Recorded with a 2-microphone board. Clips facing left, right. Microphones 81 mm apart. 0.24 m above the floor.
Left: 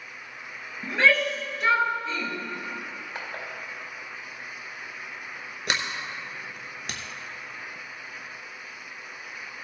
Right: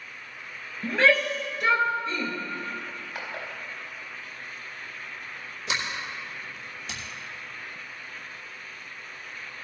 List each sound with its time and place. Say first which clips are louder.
0.8 s a shout: right 1 dB; centre (ahead or behind), 3.5 m
2.9 s crushing: even; 20° left (ahead or behind), 3.5 m
5.7 s a sliding door: left 1 dB; 65° left (ahead or behind), 1.2 m